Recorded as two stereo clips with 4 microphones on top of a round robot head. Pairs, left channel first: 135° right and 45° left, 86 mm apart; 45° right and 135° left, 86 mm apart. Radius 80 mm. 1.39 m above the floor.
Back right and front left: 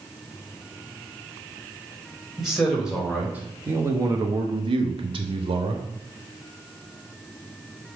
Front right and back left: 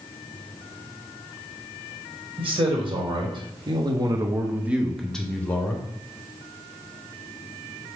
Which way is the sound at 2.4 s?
130° left.